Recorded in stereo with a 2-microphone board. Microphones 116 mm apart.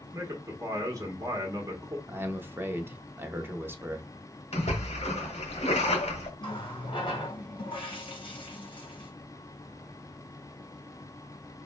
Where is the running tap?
50° left (ahead or behind), 2.0 m.